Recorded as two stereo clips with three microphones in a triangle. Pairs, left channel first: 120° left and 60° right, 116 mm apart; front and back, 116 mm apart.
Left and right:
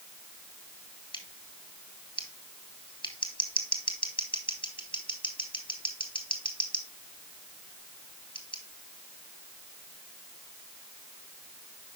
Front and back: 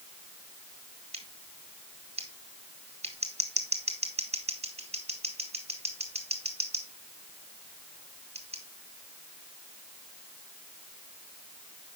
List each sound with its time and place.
1.1 s scissors: 160° left, 2 m